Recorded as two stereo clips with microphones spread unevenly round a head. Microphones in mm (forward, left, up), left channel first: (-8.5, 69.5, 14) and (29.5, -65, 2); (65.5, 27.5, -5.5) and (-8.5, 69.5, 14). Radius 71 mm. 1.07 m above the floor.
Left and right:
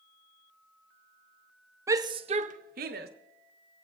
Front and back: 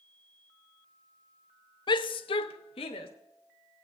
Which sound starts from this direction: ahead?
A shout, at 1.9 s.